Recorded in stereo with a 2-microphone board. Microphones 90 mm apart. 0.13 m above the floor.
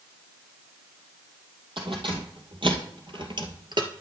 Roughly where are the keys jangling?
Right.